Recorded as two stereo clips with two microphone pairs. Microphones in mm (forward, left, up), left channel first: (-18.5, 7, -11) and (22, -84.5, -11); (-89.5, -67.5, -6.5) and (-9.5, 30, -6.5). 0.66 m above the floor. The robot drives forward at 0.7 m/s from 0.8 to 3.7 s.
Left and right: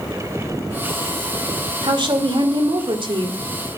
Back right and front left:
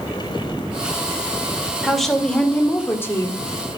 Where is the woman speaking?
40° right, 2 m; by 3.4 s 75° right, 1.5 m.